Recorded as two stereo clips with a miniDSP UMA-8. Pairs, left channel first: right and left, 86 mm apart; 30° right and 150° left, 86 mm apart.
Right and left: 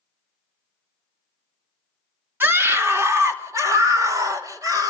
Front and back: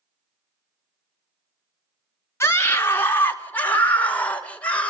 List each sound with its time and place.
2.4 s a scream: 25° left, 1.6 m; by 4.9 s 45° left, 3 m